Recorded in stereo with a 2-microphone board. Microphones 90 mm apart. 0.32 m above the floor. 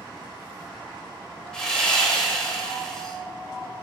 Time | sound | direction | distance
1.5 | sawing | 10° left (ahead or behind) | 0.8 m